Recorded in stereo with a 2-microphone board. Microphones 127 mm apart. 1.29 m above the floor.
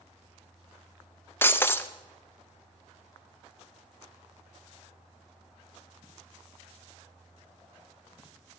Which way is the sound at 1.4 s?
20° left (ahead or behind).